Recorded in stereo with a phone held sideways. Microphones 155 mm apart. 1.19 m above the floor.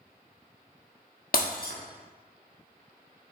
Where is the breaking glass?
75° left (ahead or behind), 1.3 m.